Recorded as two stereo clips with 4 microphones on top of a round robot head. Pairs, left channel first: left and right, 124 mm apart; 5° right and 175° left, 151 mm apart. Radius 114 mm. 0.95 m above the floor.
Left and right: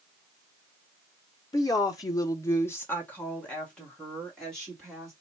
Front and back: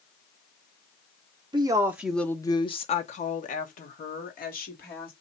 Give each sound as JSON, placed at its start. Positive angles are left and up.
{"t": 1.5, "sound": "a woman speaking", "azimuth_deg": 135, "distance_m": 0.6}